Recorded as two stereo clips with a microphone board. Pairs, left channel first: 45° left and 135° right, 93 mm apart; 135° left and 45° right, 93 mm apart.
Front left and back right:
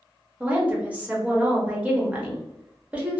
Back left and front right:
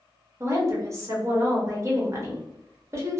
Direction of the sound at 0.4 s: 70° right.